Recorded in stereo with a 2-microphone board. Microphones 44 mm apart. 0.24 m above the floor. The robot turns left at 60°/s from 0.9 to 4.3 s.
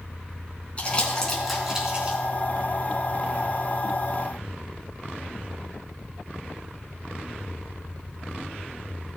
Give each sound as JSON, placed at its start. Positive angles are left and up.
{"t": 0.8, "sound": "crumpling", "side_deg": 30, "distance_m": 3.0}